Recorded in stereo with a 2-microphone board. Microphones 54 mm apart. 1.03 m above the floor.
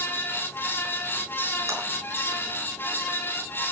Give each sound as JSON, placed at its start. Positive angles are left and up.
{"t": 1.7, "sound": "a clap", "side_deg": -85, "distance_m": 8.0}